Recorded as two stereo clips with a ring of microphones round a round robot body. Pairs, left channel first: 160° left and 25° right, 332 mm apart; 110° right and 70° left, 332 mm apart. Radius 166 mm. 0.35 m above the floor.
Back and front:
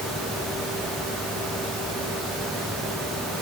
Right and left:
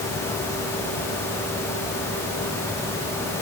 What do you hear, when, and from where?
Only background noise.